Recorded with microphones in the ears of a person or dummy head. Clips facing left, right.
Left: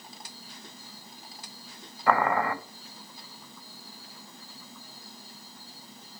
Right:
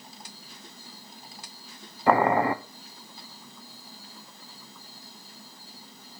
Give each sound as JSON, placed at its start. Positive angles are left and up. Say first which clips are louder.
{"t": 2.1, "sound": "boiling", "louder": "right 4 dB", "side_deg": -25, "distance_m": 0.6}